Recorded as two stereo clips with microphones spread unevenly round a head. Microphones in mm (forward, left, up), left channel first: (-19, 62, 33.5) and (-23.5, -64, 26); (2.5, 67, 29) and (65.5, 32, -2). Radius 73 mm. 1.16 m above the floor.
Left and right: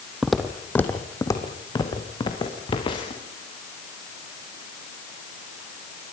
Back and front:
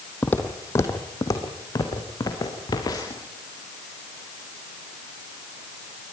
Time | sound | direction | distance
0.2 | footsteps | straight behind | 1.6 m